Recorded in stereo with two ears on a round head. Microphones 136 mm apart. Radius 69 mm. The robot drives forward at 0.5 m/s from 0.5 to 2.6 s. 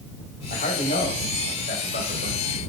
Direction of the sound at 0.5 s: 50° left (ahead or behind).